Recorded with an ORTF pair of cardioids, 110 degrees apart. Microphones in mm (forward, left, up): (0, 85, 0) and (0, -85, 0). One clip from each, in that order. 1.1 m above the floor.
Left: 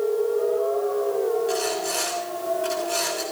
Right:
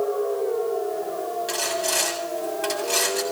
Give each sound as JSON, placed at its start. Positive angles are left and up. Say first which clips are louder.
{"t": 1.5, "sound": "sawing", "louder": "right 1 dB", "azimuth_deg": -55, "distance_m": 7.5}